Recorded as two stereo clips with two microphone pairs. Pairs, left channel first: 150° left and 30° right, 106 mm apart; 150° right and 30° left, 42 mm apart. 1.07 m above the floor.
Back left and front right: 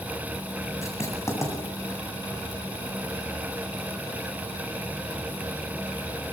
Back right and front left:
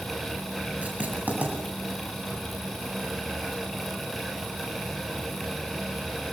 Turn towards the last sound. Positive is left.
turn(degrees=90)